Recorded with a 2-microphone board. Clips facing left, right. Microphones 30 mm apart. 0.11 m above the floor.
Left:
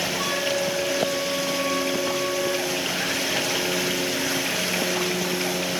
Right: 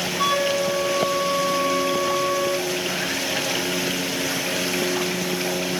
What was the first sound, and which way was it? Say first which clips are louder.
A flute: right 7 dB; 10° right (ahead or behind).